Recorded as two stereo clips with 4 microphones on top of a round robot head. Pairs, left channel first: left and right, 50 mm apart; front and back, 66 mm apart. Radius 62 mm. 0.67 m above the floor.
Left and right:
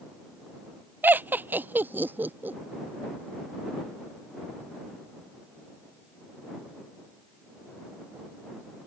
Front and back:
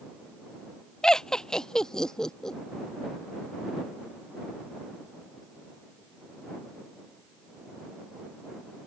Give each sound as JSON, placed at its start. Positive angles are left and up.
{"t": 1.0, "sound": "laughter", "azimuth_deg": -75}